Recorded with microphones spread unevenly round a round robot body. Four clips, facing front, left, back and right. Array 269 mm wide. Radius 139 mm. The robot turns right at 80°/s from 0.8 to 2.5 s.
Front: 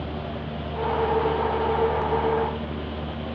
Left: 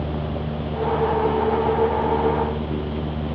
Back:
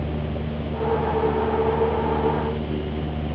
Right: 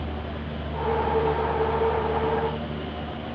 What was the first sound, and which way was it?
Only background noise.